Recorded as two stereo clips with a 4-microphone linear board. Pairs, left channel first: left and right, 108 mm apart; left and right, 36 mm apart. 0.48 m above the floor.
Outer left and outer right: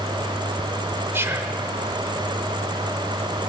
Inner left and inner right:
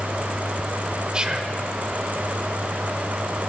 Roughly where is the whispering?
Right.